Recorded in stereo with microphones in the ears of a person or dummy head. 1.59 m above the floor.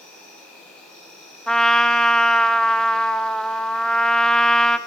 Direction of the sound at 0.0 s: 10° left (ahead or behind).